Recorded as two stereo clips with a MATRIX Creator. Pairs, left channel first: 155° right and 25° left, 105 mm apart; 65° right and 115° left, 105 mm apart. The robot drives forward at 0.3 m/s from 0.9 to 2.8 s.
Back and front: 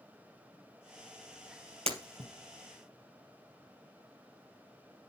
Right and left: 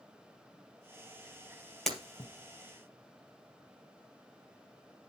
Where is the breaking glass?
20° left, 3 m; by 2.3 s 25° left, 3 m.